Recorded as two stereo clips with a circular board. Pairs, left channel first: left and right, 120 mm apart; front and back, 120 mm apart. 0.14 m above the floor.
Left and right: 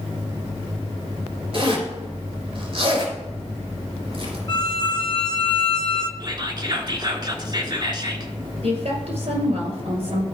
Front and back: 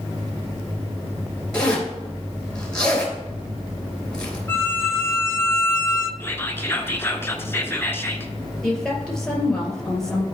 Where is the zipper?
80° right, 2.5 m.